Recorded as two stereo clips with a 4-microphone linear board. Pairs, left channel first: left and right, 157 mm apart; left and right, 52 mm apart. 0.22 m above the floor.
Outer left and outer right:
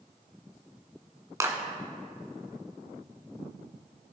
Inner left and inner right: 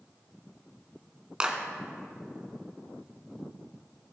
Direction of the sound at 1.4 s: 20° right (ahead or behind).